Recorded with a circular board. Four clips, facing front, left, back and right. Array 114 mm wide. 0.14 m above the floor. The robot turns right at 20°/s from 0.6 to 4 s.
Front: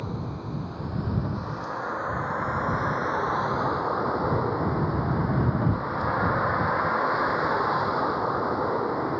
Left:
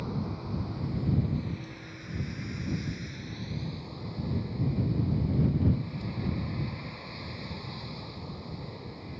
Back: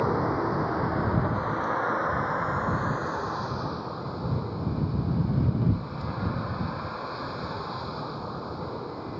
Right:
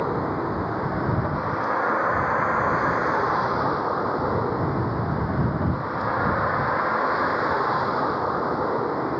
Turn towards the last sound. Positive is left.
turn(degrees=-60)